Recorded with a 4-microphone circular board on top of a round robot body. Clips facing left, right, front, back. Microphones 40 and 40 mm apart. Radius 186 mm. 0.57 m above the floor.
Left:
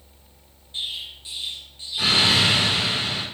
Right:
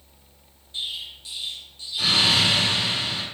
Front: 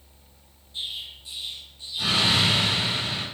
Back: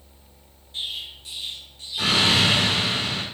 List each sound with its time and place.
0.7 s an explosion: 155° left, 7 m